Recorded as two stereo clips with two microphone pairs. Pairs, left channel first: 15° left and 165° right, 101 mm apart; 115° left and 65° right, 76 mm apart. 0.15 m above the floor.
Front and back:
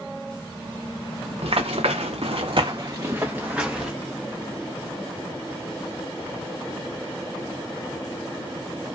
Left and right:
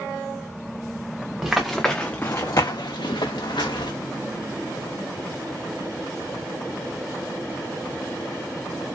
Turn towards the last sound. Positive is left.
turn(degrees=110)